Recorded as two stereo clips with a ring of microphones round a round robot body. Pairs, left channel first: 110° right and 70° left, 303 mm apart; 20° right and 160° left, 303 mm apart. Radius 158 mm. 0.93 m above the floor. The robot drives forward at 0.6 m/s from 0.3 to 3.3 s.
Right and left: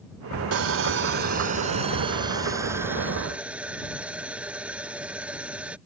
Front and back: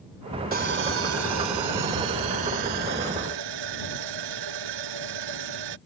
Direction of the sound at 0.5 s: 100° left.